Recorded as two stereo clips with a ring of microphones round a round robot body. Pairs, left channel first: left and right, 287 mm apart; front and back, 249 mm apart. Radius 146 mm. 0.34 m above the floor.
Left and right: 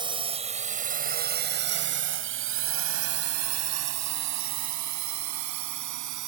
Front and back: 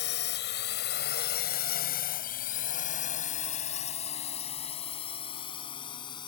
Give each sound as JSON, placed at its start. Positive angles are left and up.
{"t": 0.0, "sound": "a drone", "azimuth_deg": -20}